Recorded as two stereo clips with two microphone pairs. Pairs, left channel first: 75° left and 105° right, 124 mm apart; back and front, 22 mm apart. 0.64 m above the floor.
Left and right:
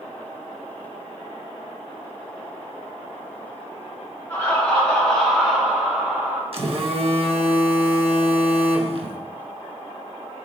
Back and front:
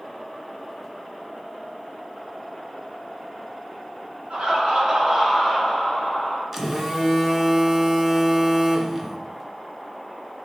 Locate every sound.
4.3 s laughter: 5° left, 1.4 m; by 6.4 s 150° right, 1.1 m
6.5 s a phone buzzing: 80° right, 0.5 m